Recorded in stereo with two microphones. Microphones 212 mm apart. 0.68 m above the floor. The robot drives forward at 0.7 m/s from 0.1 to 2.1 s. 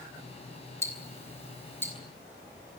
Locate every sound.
0.8 s ticking: 15° left (ahead or behind), 3.5 m; by 1.9 s 10° left (ahead or behind), 4 m